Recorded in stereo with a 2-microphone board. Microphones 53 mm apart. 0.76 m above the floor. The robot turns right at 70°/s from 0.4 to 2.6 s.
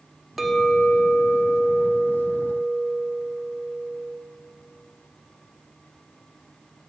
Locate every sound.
0.4 s a clink: straight ahead, 0.6 m; by 4.2 s 150° left, 0.6 m